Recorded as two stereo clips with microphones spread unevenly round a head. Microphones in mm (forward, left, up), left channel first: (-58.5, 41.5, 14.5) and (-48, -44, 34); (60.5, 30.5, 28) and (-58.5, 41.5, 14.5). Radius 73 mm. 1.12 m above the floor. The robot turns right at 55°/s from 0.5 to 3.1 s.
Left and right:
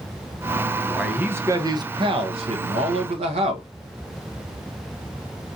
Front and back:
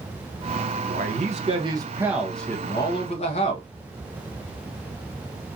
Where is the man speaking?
175° right, 1.2 m; by 3.7 s 55° right, 1.2 m.